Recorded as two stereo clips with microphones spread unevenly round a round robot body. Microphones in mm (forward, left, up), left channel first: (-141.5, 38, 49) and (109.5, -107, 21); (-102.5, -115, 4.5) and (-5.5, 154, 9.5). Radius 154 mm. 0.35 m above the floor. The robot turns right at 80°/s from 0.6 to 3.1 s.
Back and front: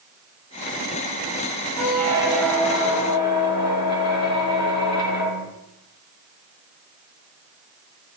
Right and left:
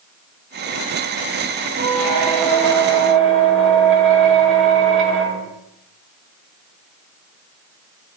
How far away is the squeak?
About 1.2 m.